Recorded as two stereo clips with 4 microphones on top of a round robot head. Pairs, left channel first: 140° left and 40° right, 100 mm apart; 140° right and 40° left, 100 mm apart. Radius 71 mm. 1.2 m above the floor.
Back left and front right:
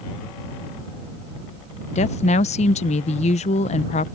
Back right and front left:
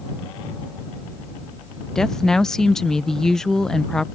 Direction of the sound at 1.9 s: 135° left.